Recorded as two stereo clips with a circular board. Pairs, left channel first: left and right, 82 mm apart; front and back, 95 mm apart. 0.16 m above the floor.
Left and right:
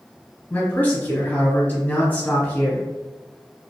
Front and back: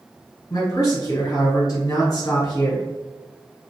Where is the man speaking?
30° left, 1.5 m.